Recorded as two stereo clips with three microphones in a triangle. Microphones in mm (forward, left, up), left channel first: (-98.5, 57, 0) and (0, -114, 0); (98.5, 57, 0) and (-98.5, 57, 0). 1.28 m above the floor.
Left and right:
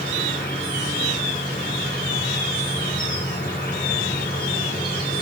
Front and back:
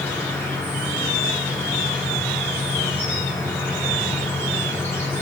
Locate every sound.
0.0 s an insect: 80° left, 2.5 m